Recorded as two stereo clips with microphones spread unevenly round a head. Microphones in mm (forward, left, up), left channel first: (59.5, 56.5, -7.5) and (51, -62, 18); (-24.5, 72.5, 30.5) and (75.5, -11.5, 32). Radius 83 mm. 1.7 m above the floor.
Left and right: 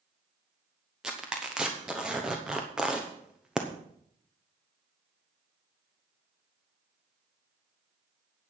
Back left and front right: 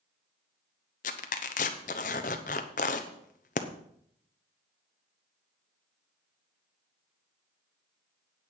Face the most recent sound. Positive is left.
turn(degrees=180)